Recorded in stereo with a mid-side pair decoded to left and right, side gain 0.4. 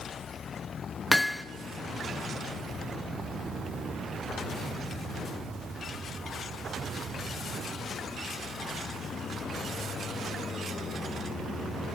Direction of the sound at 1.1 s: 5° left.